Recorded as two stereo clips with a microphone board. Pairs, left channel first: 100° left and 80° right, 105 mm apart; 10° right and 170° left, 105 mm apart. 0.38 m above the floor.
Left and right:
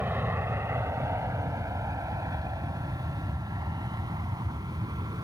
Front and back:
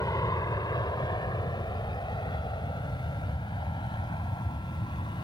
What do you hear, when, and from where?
0.0 s an aircraft: 25° right; by 5.2 s 40° right